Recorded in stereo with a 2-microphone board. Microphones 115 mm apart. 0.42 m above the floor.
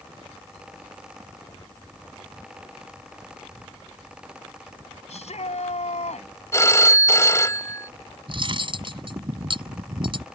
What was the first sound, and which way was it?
A shout, 75° left (ahead or behind).